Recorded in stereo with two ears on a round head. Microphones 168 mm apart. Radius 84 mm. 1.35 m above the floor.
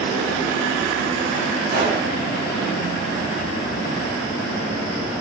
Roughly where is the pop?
Right.